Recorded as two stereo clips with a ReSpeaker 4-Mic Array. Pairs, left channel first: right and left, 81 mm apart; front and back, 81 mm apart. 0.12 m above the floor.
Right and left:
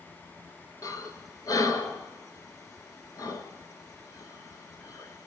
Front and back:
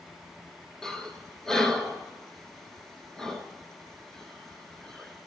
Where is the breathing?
80° right, 0.8 m.